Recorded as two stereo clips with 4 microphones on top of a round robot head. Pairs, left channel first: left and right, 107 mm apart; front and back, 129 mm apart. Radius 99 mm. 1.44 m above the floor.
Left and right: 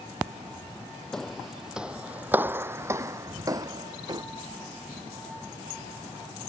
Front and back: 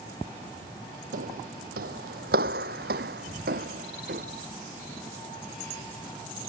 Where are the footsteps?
175° left; by 4.2 s 140° right.